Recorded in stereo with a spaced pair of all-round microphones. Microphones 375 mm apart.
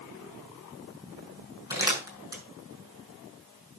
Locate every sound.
1.7 s crumpling: 10° right (ahead or behind), 6 m